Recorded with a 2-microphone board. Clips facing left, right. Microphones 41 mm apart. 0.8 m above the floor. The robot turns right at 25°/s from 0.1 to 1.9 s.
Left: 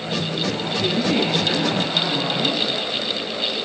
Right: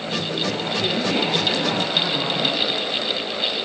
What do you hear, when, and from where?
0.8 s a woman speaking: 5° left (ahead or behind), 4 m; by 3.0 s 30° left (ahead or behind), 4 m